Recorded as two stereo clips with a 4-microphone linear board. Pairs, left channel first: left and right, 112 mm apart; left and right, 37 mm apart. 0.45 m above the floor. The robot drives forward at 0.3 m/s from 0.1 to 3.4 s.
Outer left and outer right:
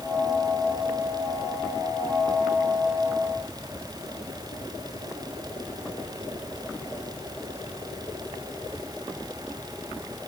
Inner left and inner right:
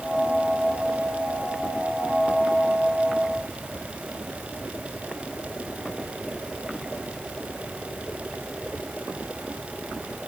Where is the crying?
I don't hear crying.